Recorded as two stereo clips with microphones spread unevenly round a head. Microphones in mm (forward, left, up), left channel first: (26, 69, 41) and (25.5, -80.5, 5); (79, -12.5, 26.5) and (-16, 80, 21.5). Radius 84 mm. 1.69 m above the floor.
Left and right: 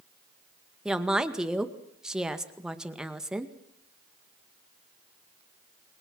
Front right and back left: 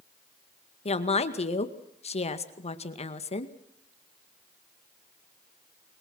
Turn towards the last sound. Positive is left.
turn(degrees=0)